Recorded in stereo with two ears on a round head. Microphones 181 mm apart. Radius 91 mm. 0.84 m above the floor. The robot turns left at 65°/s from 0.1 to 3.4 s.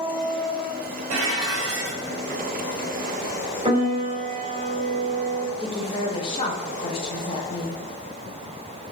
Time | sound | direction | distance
1.1 | dishes clattering | 90° right | 1.3 m
3.6 | a piano | 30° right (ahead or behind) | 1.1 m
5.6 | a woman speaking | 25° left (ahead or behind) | 0.7 m